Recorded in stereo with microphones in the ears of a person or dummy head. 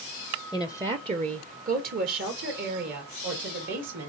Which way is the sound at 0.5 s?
Centre (ahead or behind).